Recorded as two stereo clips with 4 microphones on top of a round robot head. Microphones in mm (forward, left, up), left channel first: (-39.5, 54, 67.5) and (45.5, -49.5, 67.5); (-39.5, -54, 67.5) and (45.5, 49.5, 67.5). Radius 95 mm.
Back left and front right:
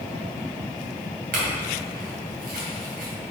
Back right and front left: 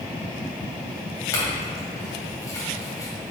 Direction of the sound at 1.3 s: 60° right.